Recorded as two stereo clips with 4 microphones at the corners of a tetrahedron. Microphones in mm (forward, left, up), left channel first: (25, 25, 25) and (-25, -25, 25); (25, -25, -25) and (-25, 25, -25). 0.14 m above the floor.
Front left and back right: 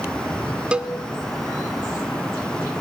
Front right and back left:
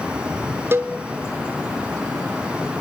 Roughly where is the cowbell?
Behind left.